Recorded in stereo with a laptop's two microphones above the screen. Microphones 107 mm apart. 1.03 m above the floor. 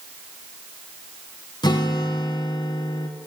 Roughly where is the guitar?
Left.